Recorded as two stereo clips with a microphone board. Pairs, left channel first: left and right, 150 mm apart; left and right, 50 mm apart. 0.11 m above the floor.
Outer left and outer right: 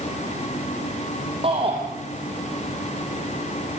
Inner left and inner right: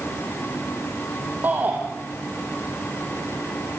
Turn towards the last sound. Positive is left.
turn(degrees=-40)  # may be behind; listen again after turning